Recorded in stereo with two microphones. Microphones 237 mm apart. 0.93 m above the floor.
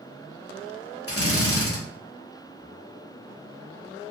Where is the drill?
75° left (ahead or behind), 0.9 m.